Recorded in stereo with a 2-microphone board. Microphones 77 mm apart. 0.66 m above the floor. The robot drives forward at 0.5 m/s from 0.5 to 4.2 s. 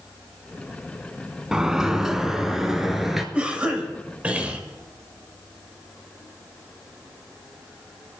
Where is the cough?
15° right (ahead or behind), 3 m; by 4.6 s 20° right (ahead or behind), 2.5 m.